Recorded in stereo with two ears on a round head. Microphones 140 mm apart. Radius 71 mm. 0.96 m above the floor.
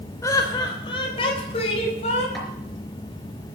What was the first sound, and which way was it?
Laughter, 20° left (ahead or behind).